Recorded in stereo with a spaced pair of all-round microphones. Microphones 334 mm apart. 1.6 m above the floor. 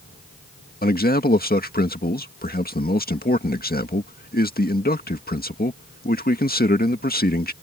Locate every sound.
0.8 s a man speaking: 25° left (ahead or behind)